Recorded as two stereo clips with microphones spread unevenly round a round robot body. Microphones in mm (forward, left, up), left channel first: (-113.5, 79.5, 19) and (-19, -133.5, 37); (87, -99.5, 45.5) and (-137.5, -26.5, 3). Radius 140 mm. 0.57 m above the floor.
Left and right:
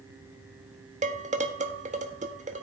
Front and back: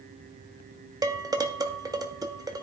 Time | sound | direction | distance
1.0 | dishes clattering | 125° right | 1.5 m